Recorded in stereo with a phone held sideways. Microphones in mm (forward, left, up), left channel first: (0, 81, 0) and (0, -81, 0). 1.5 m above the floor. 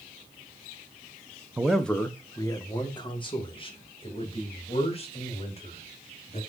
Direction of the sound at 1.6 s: 10° right (ahead or behind).